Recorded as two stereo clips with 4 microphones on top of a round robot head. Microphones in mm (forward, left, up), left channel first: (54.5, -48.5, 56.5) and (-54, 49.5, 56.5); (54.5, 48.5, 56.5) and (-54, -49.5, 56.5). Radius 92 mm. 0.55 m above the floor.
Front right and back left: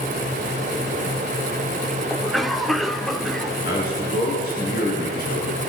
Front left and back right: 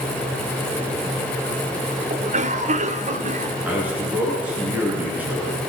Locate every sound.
2.1 s a cough: 135° right, 2 m
3.6 s a man speaking: 60° right, 9 m